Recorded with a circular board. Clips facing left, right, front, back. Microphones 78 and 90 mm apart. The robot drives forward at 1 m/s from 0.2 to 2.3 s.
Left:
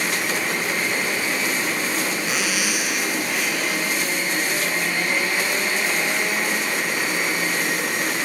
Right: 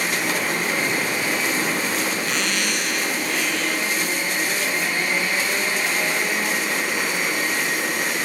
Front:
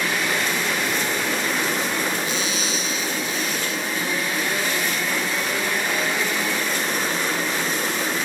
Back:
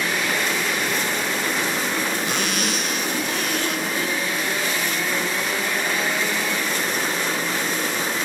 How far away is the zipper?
About 0.7 m.